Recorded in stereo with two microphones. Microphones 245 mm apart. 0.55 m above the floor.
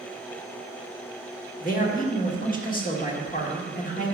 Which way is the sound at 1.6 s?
35° left (ahead or behind).